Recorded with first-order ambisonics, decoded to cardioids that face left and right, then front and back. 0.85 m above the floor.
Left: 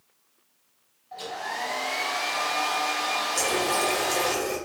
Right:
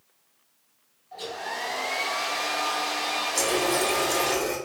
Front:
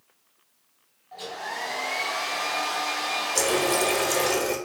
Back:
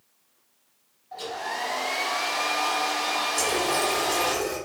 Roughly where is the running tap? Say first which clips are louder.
Right 2 dB, front 5 dB; ahead.